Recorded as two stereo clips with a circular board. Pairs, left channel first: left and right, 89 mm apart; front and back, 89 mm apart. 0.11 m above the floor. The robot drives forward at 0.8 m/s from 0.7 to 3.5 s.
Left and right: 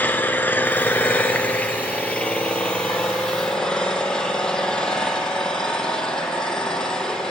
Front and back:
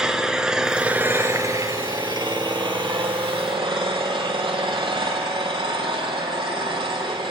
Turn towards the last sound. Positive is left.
turn(degrees=170)